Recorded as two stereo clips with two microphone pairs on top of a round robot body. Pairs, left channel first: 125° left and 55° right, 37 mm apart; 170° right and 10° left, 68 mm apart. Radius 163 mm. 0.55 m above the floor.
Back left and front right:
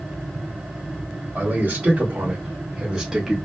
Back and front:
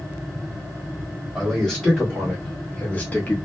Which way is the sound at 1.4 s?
85° right.